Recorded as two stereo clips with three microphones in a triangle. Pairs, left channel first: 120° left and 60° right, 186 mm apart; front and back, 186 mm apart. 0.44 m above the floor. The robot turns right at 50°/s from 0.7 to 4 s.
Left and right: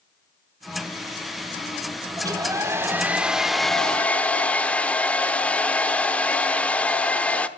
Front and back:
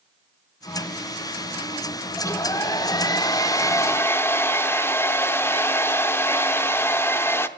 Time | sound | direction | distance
2.2 | a hair dryer | 40° right | 0.7 m